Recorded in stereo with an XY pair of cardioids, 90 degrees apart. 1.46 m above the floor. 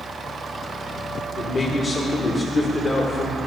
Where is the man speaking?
45° left, 1.3 m.